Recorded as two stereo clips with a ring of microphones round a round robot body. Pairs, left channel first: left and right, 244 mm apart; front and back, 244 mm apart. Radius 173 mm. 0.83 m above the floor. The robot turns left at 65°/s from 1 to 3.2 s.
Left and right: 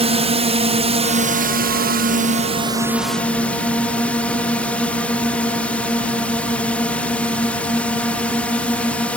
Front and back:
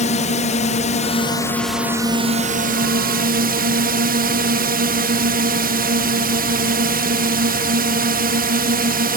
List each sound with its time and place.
0.0 s a drone: 45° right; by 9.2 s 175° left